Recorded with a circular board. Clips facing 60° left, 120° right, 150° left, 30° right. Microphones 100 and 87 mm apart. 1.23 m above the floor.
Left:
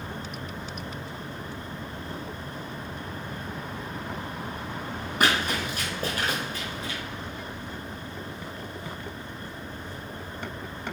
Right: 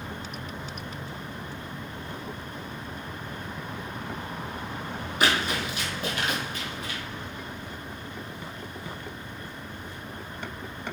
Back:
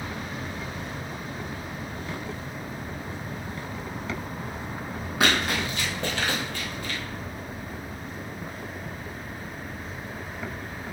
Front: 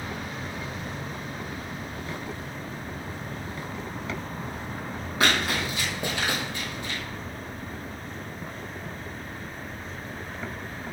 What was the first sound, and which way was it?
Running footsteps, 60° left.